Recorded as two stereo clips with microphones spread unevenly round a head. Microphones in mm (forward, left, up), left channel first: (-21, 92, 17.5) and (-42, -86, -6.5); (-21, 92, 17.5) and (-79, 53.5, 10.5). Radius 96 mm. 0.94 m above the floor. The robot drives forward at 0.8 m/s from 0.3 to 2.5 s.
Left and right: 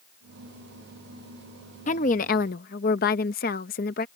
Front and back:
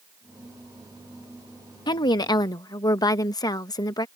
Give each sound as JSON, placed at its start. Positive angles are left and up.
{"t": 1.9, "sound": "a woman speaking", "azimuth_deg": 30}